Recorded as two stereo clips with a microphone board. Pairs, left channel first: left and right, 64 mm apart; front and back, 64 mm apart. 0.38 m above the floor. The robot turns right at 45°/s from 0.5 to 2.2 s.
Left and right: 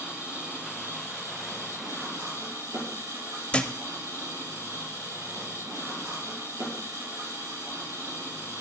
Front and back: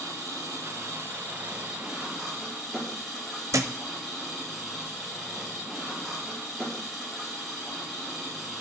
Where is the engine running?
160° right, 7.5 m; by 8.6 s 85° right, 7.5 m.